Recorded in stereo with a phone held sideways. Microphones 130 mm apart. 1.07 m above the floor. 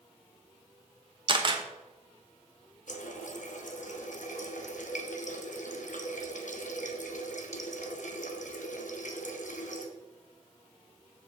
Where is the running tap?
80° left, 0.9 m.